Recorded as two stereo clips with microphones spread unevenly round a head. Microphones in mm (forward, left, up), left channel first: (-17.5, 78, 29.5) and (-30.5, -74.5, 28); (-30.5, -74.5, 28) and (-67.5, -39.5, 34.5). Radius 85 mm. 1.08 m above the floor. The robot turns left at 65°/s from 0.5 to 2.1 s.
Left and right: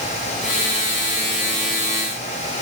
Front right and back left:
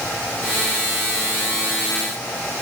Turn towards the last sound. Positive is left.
No sound to turn to.